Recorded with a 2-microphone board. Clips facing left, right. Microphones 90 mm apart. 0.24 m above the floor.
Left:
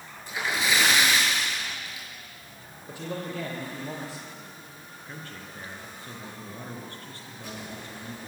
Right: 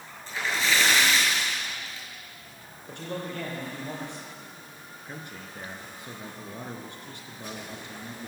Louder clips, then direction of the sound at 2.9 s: Left 1 dB; 5° left (ahead or behind).